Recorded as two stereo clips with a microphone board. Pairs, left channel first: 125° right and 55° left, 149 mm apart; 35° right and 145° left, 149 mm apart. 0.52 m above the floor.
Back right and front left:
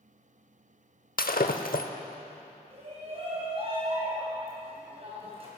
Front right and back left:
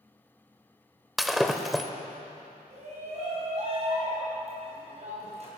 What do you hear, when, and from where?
1.2 s breaking glass: 125° right, 0.8 m
2.7 s a shout: 105° left, 3 m